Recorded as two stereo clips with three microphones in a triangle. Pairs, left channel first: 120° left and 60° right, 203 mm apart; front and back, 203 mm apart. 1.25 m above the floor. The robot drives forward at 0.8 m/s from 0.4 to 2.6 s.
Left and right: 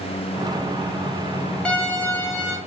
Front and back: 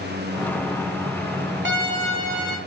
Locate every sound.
1.6 s a violin: 155° right, 1.1 m; by 2.6 s 165° right, 1.8 m